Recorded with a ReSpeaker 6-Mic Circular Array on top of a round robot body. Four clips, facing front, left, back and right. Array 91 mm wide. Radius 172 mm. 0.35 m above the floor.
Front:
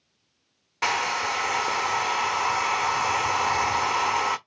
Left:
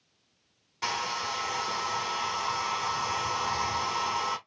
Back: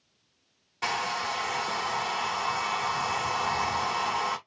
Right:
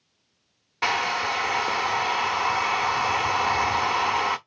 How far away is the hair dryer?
About 0.9 m.